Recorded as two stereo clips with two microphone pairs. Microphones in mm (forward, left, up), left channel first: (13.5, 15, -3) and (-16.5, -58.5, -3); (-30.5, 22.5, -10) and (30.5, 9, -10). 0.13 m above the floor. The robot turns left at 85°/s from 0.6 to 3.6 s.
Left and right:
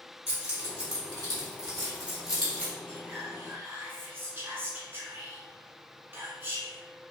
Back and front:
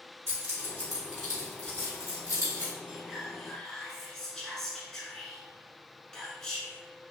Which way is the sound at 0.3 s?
50° right.